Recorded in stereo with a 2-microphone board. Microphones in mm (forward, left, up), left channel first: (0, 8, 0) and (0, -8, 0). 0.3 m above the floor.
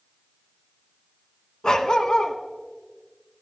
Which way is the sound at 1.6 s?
65° left (ahead or behind).